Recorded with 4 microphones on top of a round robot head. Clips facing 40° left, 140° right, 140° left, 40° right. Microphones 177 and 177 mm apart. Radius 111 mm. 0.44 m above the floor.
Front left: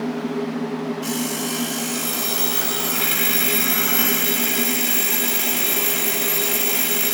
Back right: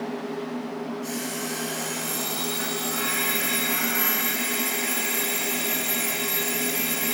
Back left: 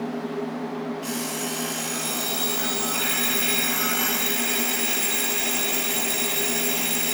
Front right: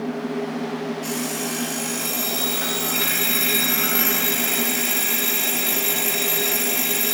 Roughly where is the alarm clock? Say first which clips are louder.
Front left 6 dB, front right 3 dB; ahead left.